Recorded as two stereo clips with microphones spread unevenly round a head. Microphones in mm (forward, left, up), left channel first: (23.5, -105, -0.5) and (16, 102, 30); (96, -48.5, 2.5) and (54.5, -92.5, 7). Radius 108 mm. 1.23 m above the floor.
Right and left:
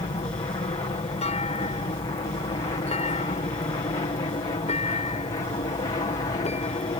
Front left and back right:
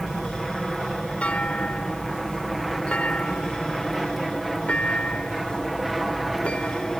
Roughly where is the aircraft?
Ahead right.